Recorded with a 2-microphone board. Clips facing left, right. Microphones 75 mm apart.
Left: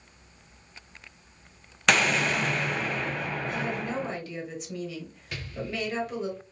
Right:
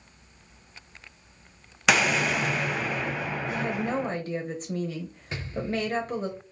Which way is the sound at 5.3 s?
25° right (ahead or behind).